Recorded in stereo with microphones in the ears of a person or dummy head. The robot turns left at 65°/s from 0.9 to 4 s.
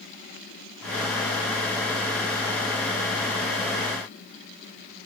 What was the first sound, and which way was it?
Only background noise.